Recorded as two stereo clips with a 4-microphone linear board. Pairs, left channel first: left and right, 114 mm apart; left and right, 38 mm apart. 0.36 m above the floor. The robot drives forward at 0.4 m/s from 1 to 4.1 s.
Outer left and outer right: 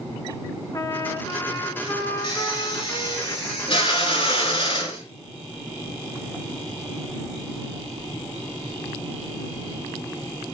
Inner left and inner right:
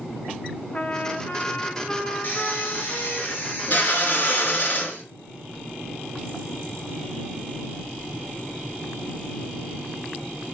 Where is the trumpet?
35° left (ahead or behind), 2.5 m; by 3.2 s 25° left (ahead or behind), 3.5 m.